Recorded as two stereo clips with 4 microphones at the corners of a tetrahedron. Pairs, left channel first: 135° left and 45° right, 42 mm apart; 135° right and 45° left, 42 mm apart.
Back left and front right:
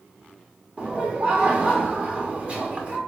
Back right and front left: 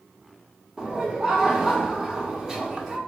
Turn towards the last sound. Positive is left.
turn(degrees=-20)